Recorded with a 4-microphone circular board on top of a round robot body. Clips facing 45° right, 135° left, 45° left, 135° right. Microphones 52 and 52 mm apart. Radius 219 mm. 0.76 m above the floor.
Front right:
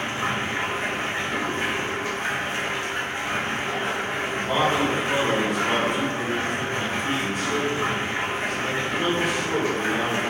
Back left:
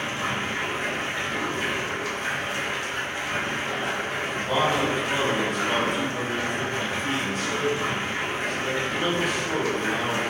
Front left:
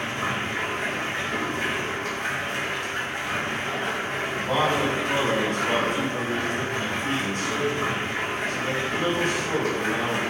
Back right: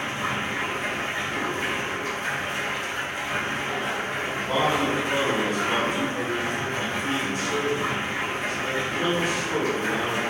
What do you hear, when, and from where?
0.0 s running water: 15° left, 1.3 m
4.4 s a man speaking: 45° left, 1.3 m